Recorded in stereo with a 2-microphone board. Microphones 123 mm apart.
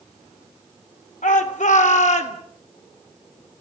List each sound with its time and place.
1.2 s a shout: 85° left, 4 m; by 2.4 s 65° left (ahead or behind), 3.5 m